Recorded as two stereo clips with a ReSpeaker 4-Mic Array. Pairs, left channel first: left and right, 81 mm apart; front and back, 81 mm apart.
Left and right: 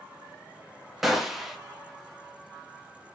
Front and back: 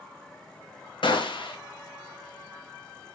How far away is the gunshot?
About 1.1 m.